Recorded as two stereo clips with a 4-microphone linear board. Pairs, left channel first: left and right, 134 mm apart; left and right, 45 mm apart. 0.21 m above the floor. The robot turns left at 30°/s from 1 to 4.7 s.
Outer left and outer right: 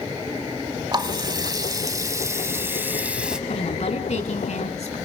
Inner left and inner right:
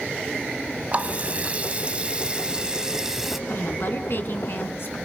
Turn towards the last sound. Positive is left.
turn(degrees=80)